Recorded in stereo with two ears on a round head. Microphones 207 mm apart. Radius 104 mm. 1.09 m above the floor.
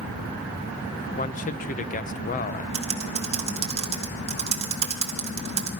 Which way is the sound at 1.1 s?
35° left (ahead or behind).